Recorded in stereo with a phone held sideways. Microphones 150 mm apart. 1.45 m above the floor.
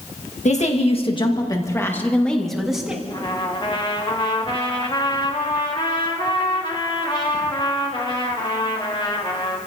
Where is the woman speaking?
55° left (ahead or behind), 1.8 m; by 3.0 s 5° right (ahead or behind), 2.5 m.